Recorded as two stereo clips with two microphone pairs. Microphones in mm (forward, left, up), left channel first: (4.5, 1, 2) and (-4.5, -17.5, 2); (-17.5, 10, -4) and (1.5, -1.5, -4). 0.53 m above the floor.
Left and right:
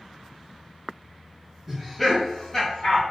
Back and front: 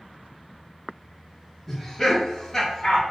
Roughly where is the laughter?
Behind right.